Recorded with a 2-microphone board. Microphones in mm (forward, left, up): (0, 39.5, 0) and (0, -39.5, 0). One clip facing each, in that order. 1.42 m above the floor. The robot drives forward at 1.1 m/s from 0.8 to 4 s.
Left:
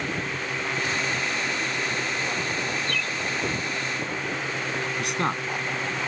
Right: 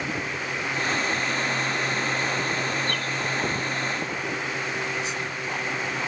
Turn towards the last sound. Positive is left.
turn(degrees=65)  # may be behind; listen again after turning